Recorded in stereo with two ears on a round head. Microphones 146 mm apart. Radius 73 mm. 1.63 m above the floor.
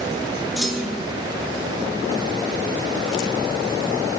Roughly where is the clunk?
Centre.